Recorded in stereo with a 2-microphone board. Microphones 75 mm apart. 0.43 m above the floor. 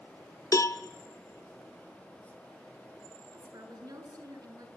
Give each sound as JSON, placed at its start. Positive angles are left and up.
{"t": 0.5, "sound": "a cowbell", "side_deg": 45, "distance_m": 0.8}
{"t": 3.3, "sound": "a woman speaking", "side_deg": -55, "distance_m": 5.5}